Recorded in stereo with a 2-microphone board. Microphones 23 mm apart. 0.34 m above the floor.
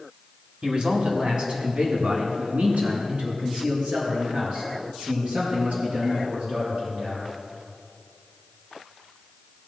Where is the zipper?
No zipper in this recording.